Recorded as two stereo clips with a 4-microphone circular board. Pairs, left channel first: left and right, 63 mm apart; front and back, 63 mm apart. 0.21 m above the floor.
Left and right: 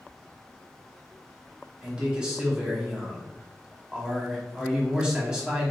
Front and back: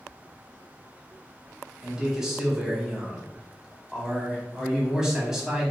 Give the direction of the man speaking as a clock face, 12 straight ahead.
4 o'clock.